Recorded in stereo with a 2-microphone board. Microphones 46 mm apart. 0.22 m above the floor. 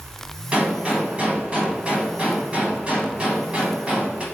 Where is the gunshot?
25° right (ahead or behind), 1.2 m.